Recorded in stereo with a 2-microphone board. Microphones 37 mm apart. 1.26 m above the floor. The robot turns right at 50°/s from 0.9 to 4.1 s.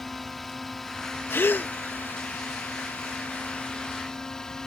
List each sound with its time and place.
0.0 s a drone: 5° left; by 4.7 s 165° left
1.3 s a gasp: 80° left; by 1.7 s 60° left (ahead or behind)